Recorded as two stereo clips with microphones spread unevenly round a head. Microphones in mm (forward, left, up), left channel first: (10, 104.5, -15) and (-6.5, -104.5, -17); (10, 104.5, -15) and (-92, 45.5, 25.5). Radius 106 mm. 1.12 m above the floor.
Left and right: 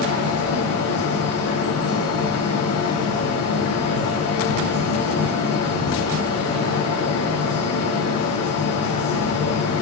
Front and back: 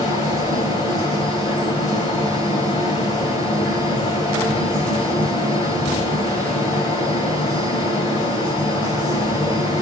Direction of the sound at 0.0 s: 85° left.